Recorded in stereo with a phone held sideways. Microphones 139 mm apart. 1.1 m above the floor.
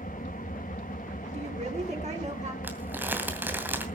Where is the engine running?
80° left, 0.9 m.